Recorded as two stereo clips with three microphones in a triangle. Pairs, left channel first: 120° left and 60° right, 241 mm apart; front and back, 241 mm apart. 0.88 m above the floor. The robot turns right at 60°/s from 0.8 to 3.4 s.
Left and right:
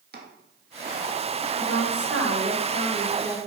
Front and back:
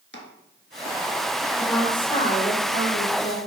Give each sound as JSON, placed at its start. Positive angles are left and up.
{"t": 0.1, "sound": "chopping", "azimuth_deg": -20, "distance_m": 1.5}
{"t": 1.6, "sound": "a woman speaking", "azimuth_deg": -95, "distance_m": 2.5}